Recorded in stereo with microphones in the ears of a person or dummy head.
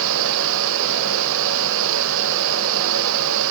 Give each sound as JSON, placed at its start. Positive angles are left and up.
{"t": 0.0, "sound": "a fan", "side_deg": -70, "distance_m": 0.9}